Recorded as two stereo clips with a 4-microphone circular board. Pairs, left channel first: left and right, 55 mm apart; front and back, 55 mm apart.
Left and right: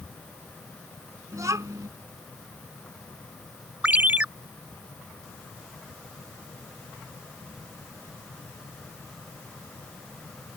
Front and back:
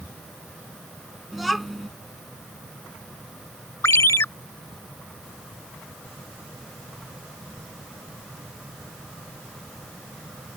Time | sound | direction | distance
1.3 | a child speaking | 90° right | ?
3.8 | a ringtone | 30° right | ?